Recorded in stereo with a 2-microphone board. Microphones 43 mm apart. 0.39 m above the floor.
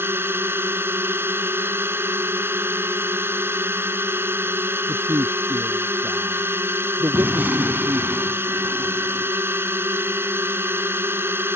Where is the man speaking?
85° right.